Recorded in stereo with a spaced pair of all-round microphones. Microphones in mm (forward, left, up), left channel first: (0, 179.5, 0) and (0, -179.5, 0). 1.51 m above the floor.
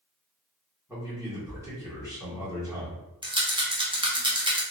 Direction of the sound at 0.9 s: 10° right (ahead or behind).